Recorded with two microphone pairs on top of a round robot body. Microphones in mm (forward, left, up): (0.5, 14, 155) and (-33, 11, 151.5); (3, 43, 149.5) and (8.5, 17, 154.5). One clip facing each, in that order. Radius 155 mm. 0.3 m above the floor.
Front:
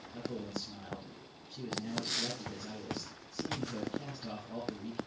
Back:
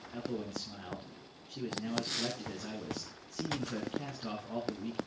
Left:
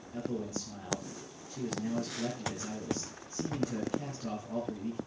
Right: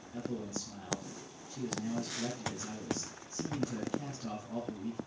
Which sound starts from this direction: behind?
A man speaking, at 0.1 s.